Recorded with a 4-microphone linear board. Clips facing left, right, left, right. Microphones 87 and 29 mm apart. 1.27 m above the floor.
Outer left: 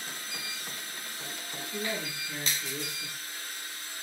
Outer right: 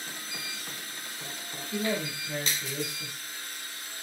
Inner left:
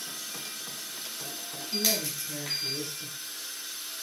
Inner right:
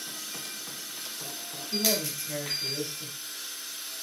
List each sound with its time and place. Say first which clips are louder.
1.7 s a man speaking: outer right 5 dB, inner right 1 dB; 65° right (ahead or behind), 1.6 m